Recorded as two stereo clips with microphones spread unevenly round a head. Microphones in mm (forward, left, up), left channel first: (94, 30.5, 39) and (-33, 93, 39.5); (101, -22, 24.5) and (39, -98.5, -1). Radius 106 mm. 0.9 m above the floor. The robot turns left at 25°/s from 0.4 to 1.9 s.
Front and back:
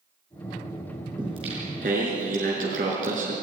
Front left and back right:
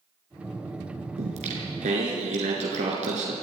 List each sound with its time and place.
1.2 s singing: 135° right, 4.5 m; by 3.3 s 155° right, 4.5 m